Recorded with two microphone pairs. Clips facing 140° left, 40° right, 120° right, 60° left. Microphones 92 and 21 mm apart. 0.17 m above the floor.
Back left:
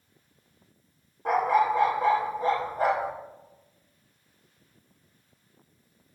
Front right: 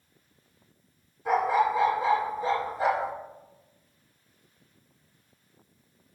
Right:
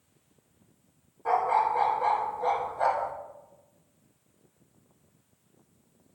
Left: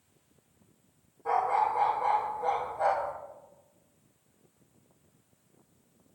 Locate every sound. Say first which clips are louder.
1.2 s a dog barking: back left 1 dB, right 2 dB; 175° left, 3 m